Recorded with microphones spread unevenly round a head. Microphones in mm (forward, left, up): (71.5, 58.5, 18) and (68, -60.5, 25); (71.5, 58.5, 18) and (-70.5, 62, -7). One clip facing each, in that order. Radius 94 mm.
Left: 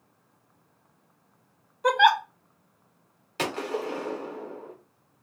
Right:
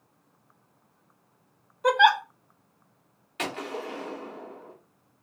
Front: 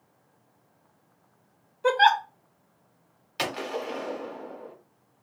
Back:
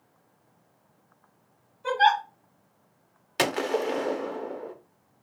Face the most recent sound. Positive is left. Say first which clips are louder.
# left 4 dB, back 6 dB
turn(degrees=150)